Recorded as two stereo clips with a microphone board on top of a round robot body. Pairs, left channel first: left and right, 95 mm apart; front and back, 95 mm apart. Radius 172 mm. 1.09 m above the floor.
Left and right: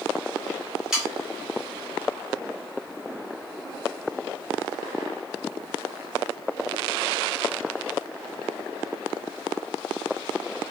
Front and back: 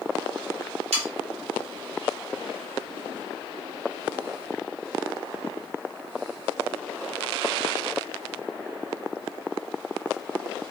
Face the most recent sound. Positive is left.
turn(degrees=-175)